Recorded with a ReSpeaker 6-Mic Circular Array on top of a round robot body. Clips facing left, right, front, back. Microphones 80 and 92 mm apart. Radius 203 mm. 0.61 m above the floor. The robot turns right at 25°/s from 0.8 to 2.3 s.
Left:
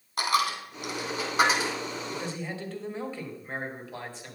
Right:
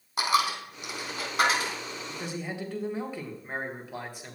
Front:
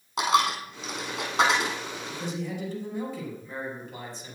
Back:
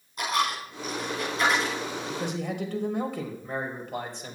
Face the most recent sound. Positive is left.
turn(degrees=-165)